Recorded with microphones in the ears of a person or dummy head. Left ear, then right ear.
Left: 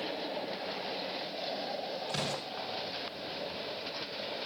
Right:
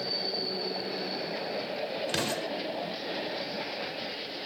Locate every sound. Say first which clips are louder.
2.1 s an explosion: right 4 dB; 25° right (ahead or behind), 1.7 m